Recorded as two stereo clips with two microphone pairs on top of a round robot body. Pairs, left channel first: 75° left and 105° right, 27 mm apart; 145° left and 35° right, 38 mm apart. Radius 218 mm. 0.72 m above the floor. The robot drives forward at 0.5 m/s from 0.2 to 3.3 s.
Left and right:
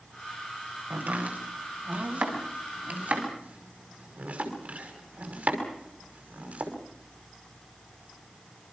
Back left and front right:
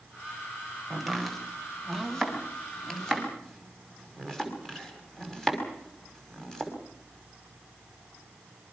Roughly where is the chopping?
Behind right.